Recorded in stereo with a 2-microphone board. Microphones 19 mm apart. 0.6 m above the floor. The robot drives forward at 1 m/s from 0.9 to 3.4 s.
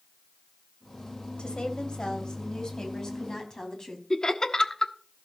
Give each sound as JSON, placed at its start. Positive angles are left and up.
{"t": 1.4, "sound": "a woman speaking", "side_deg": 55, "distance_m": 2.5}
{"t": 4.1, "sound": "laughter", "side_deg": 35, "distance_m": 1.2}